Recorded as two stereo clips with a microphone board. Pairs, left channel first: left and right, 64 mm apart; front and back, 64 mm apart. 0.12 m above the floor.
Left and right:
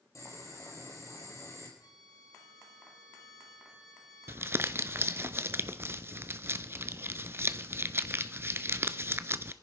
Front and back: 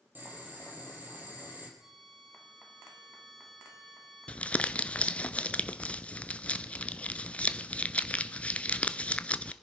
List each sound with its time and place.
0.1 s boiling: 120° left, 4 m
1.8 s a violin: 95° left, 2.5 m
4.3 s crumpling: 60° right, 0.6 m